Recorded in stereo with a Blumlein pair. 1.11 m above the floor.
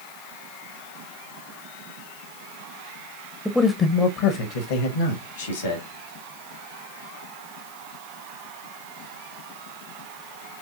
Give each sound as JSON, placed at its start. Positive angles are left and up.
{"t": 3.5, "sound": "a man speaking", "azimuth_deg": 0, "distance_m": 0.6}